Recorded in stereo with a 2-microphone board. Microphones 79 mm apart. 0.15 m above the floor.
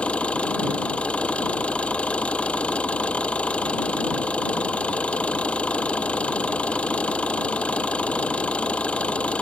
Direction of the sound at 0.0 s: 15° left (ahead or behind).